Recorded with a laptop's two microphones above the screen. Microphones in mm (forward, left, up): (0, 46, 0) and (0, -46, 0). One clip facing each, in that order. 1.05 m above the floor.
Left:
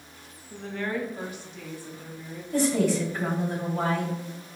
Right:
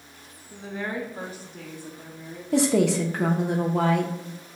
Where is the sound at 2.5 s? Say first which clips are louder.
Right 3 dB; 80° right, 0.7 m.